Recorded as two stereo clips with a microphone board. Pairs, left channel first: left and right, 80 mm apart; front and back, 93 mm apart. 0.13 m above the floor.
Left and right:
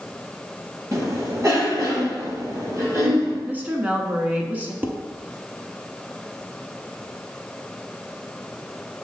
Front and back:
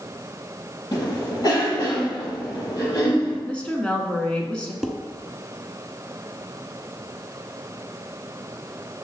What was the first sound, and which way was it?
A cough, 40° right.